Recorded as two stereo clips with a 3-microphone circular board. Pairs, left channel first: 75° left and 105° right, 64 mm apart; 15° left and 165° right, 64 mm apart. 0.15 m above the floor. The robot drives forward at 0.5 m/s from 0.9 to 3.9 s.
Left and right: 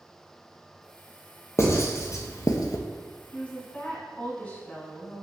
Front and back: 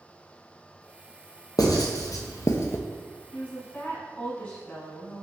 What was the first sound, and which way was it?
Writing, 30° left.